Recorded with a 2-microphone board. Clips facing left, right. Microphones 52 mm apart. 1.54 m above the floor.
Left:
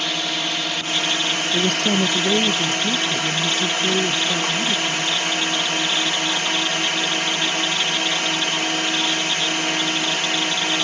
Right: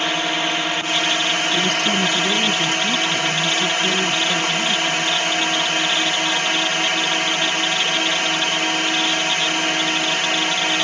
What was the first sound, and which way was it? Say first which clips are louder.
A drone: right 4 dB; 30° right (ahead or behind).